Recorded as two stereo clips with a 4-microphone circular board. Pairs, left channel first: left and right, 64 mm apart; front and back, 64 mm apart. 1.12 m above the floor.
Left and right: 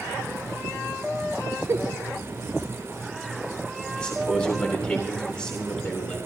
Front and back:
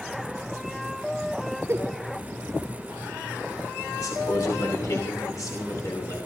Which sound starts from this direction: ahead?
A man speaking, at 4.0 s.